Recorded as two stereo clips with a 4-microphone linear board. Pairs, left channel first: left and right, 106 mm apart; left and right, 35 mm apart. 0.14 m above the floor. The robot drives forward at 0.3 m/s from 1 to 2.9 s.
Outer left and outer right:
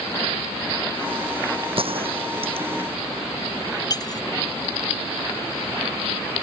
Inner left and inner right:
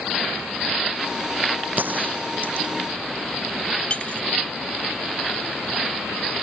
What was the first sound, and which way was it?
A gunshot, 55° right (ahead or behind).